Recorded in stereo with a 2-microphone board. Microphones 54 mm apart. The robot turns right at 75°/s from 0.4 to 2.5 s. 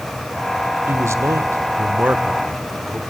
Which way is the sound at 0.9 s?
130° right.